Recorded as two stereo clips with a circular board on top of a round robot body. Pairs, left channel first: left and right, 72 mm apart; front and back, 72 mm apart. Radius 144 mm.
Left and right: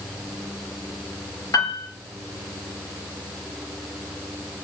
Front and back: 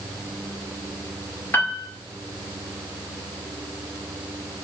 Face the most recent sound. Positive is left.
turn(degrees=60)